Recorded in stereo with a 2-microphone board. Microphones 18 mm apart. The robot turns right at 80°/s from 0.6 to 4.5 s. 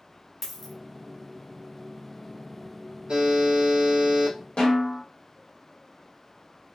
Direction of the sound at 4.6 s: 50° left (ahead or behind).